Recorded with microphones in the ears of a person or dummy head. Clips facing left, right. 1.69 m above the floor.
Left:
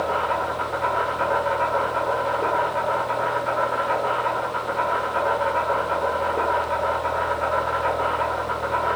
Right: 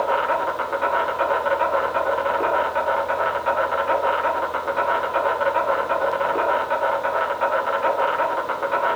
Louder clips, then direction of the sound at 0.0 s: Right 2 dB; 55° right (ahead or behind).